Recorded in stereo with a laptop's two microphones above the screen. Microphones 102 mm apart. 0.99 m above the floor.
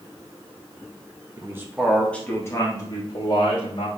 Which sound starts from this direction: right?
A man speaking, at 1.4 s.